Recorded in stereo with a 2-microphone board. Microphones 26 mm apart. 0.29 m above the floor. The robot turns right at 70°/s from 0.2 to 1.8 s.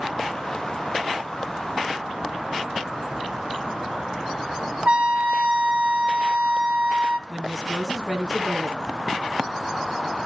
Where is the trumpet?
70° right (ahead or behind), 0.9 m.